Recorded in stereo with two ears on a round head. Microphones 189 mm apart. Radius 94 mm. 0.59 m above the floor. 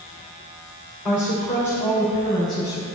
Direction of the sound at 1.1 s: 5° left (ahead or behind).